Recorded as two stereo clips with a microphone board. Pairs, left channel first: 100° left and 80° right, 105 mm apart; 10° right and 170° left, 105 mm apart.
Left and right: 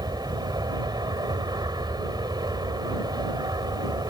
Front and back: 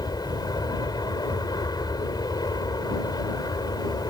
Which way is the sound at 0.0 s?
45° right.